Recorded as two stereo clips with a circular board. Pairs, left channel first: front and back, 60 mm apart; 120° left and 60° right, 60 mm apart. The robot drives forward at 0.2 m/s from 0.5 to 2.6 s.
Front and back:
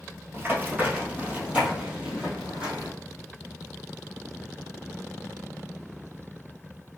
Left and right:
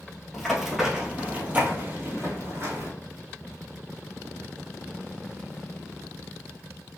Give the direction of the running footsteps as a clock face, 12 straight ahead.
5 o'clock.